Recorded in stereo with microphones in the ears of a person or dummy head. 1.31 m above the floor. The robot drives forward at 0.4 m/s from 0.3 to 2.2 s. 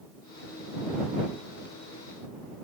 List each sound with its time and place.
Only background noise.